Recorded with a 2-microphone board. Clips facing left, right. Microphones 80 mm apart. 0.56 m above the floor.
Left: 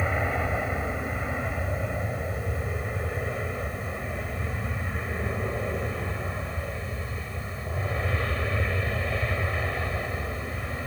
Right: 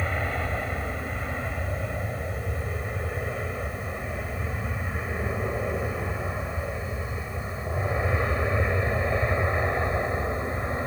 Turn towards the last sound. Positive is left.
turn(degrees=-25)  # may be behind; listen again after turning